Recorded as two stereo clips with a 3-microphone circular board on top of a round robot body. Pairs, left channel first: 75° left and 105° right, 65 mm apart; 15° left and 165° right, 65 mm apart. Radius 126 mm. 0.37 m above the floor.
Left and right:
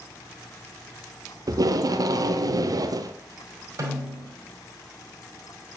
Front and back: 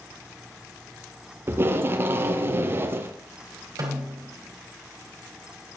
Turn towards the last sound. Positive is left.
turn(degrees=-140)